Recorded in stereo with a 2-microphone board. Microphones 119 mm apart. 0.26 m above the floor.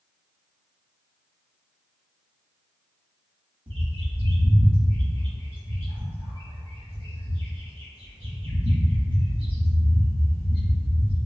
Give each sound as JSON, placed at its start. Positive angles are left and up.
{"t": 3.7, "sound": "a bird", "side_deg": -45, "distance_m": 1.3}